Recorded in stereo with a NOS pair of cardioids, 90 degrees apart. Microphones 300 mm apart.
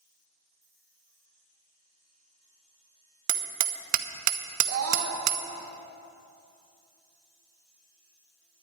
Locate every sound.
3.3 s hammering: 65° right, 0.8 m
4.7 s a scream: 55° right, 2 m